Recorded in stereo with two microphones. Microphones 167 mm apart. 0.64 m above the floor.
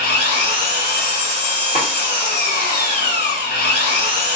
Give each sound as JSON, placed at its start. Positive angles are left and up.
{"t": 0.0, "sound": "an engine running", "side_deg": 80, "distance_m": 1.6}
{"t": 1.8, "sound": "a snare drum", "side_deg": 55, "distance_m": 0.8}